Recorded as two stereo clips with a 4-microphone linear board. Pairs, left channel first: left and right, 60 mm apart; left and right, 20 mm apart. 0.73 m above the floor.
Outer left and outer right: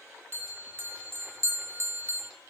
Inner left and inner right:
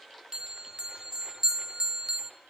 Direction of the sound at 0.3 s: 40° right (ahead or behind).